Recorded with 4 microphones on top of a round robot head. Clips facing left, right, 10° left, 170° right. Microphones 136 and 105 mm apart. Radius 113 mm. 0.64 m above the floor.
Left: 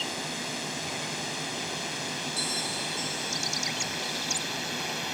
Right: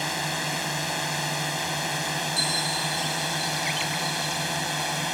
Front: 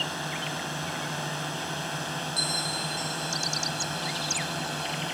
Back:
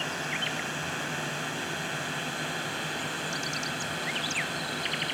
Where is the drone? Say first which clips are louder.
Right 5 dB, even; 65° right; by 5.1 s 55° right.